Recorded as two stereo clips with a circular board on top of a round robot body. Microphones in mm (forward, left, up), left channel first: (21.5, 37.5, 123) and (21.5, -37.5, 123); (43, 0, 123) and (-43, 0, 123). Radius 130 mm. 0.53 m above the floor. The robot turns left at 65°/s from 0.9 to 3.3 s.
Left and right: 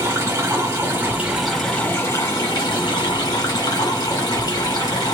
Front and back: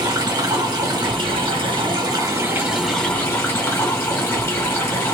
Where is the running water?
145° right, 1.7 m; by 5.2 s 60° left, 1.7 m.